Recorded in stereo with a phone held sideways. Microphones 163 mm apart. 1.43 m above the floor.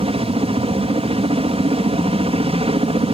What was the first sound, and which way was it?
A helicopter, 35° right (ahead or behind).